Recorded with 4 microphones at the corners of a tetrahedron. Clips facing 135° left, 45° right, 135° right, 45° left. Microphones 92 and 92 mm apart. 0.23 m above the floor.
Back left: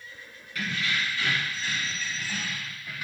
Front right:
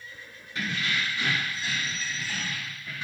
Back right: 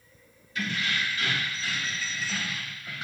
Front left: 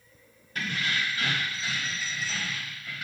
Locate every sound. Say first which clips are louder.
0.6 s keys jangling: even, even; 15° left, 1.4 m; by 3.0 s 160° right, 1.0 m